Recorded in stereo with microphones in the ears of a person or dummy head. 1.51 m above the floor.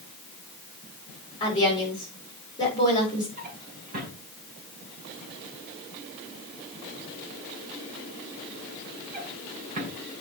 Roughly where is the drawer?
Right.